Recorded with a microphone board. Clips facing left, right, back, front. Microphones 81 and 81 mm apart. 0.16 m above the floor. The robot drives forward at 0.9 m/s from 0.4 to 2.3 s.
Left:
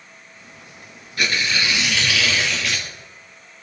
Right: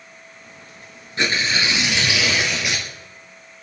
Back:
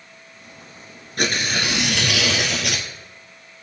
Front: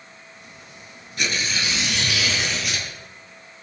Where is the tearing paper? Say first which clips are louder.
Right 1 dB, back 4 dB; 150° right, 1.7 m; by 2.9 s 160° right, 2.5 m.